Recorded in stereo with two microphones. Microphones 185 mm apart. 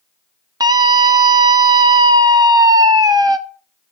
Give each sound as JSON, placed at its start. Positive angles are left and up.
{"t": 0.6, "sound": "a scream", "side_deg": -20, "distance_m": 0.8}